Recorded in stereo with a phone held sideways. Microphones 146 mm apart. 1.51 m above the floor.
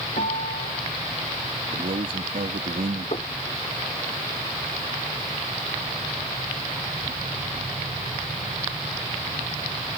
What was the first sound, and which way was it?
A piano, 65° left (ahead or behind).